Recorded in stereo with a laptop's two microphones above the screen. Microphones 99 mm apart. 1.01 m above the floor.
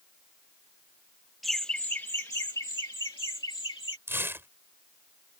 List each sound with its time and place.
1.4 s laughter: centre (ahead or behind); by 4.0 s 60° left (ahead or behind)
4.1 s tearing paper: 25° right (ahead or behind)